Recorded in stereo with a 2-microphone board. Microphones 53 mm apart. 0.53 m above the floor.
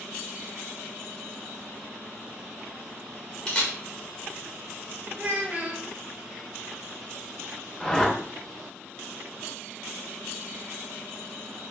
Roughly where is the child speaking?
Right.